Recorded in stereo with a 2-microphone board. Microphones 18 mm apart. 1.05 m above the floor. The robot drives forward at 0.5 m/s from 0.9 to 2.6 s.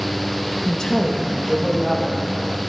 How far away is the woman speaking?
About 1.0 m.